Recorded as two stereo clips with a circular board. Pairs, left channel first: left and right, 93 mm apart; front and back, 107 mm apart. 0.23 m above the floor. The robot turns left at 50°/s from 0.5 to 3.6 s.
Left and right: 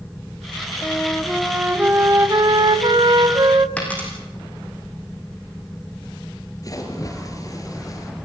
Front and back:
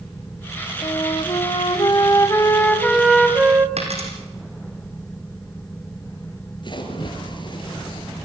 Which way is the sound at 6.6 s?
40° left.